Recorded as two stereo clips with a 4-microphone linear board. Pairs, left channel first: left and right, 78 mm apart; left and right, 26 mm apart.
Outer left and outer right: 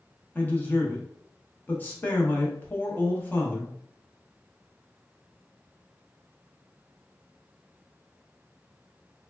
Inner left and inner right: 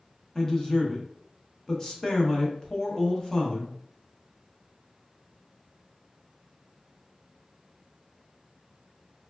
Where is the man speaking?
25° left (ahead or behind), 0.7 m.